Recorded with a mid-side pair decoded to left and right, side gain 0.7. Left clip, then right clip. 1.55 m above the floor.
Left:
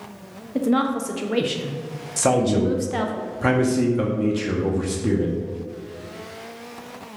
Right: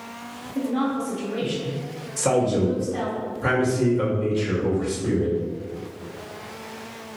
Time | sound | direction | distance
0.6 | a woman speaking | 65° left | 0.5 m
2.2 | a man speaking | 50° left | 0.7 m